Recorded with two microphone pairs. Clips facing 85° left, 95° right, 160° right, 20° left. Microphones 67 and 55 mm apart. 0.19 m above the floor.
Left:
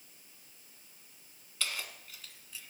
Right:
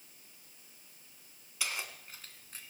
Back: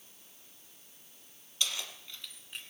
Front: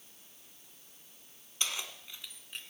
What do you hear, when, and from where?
1.6 s keys jangling: 20° right, 1.2 m; by 2.6 s 70° right, 1.5 m